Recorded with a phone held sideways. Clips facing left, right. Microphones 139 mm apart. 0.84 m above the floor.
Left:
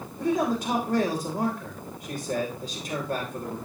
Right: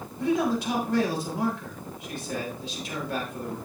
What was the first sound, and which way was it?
A man speaking, 50° left (ahead or behind).